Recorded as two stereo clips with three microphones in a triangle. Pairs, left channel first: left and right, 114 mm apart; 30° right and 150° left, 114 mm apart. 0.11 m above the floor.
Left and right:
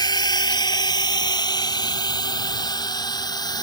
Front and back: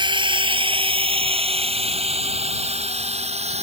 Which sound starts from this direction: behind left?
A drone, at 0.0 s.